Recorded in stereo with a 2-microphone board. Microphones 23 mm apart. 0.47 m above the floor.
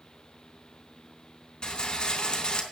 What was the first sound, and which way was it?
A rattle, 40° left (ahead or behind).